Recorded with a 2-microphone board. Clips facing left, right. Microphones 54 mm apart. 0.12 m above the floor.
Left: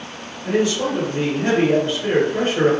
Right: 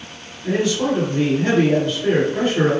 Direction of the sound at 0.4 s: 20° left (ahead or behind).